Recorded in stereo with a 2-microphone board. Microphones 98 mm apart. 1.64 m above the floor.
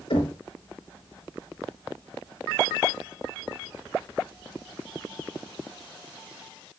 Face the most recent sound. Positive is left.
turn(degrees=80)